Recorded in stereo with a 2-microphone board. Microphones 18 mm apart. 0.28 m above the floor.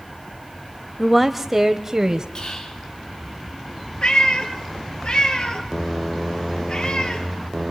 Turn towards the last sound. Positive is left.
turn(degrees=55)  # may be behind; listen again after turning